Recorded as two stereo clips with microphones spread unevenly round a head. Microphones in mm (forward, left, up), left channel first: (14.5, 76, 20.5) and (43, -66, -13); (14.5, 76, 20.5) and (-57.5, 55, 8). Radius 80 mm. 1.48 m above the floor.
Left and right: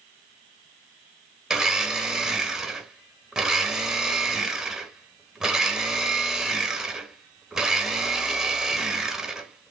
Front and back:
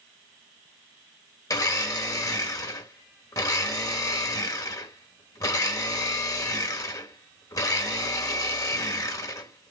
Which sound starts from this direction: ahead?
A blender, at 1.5 s.